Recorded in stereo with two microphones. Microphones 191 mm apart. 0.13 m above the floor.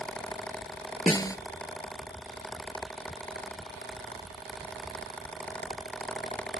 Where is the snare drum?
20° left (ahead or behind), 0.6 m.